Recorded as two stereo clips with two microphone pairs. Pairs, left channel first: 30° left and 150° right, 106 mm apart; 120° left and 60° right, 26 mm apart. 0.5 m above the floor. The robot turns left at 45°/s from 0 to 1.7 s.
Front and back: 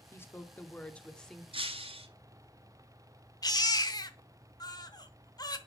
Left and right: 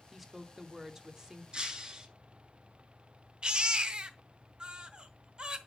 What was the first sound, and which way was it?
A woman speaking, 10° left.